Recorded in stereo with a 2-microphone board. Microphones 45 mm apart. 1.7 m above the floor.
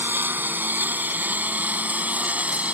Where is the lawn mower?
50° right (ahead or behind); by 2.8 s 30° right (ahead or behind).